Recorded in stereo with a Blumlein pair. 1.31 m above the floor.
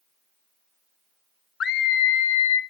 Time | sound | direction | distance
1.6 | a scream | 25° left | 0.8 m